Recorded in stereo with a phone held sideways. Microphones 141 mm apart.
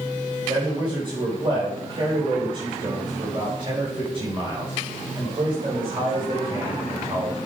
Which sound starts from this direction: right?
A man speaking, at 0.5 s.